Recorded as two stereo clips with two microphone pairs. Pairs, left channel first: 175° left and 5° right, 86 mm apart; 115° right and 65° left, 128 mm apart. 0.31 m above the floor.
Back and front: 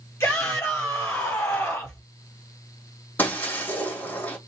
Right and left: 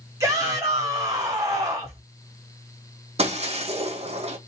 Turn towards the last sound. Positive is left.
turn(degrees=100)